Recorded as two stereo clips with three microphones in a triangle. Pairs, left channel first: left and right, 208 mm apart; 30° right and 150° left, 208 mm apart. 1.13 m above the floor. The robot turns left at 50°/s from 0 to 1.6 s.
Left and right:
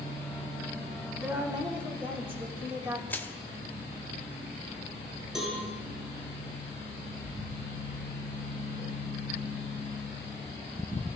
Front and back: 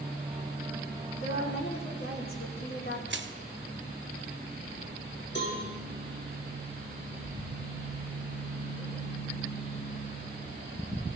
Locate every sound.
1.2 s a woman speaking: straight ahead, 3 m; by 3.0 s 20° right, 3 m
3.1 s crushing: 170° left, 0.8 m
5.3 s a cowbell: straight ahead, 3 m